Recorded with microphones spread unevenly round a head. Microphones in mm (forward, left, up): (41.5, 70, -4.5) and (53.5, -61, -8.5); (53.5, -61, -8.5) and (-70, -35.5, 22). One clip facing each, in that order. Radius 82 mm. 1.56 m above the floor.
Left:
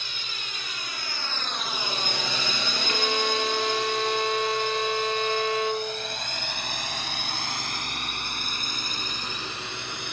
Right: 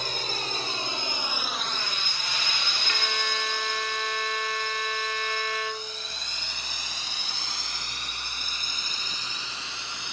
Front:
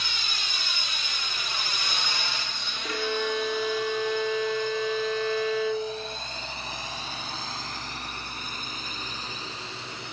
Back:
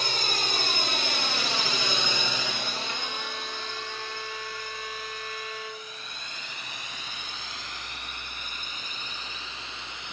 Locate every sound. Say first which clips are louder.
0.0 s a drone: right 9 dB, back 7 dB; 145° right; by 10.1 s 55° left
2.8 s a violin: left 7 dB, front 8 dB; 30° left